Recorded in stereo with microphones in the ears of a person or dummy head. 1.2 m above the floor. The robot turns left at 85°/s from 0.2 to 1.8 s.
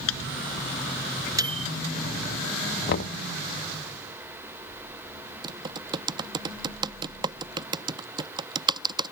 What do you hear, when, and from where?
0.1 s a microwave: 80° left; by 1.7 s 45° right (ahead or behind)
2.9 s knocking: 55° left (ahead or behind)
5.4 s typing on a keyboard: 25° right (ahead or behind)